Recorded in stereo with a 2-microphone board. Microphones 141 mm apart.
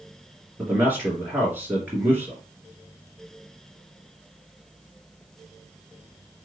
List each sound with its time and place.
0.6 s a man speaking: 15° right (ahead or behind), 3 m